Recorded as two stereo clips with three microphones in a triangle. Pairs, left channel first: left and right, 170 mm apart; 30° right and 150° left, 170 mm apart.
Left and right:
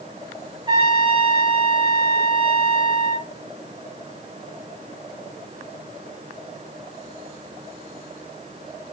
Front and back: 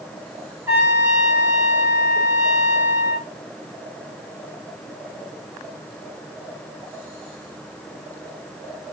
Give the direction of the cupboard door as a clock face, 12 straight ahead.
No cupboard door in this recording.